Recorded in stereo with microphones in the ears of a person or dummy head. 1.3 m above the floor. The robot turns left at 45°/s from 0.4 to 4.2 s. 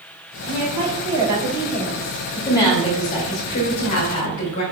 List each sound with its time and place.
0.5 s a woman speaking: 120° right, 1.3 m; by 2.2 s 165° left, 1.3 m
2.4 s a woman speaking: 175° left, 1.5 m; by 4.6 s 90° left, 1.5 m